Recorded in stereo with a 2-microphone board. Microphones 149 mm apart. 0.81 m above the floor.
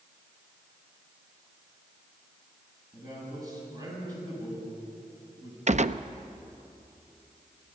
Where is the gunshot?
50° right (ahead or behind), 0.5 m.